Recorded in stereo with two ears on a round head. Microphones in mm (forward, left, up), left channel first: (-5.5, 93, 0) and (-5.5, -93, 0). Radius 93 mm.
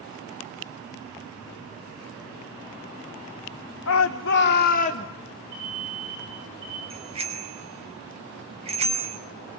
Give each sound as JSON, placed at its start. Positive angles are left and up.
{"t": 3.9, "sound": "a shout", "side_deg": 65, "distance_m": 0.9}
{"t": 5.5, "sound": "an alarm", "side_deg": -85, "distance_m": 8.0}
{"t": 6.9, "sound": "a bicycle bell", "side_deg": -30, "distance_m": 3.5}